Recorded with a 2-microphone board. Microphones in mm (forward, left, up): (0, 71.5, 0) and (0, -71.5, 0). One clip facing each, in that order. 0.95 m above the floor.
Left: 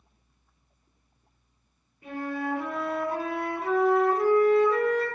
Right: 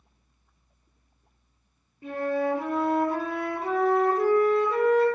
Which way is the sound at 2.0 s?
30° right (ahead or behind).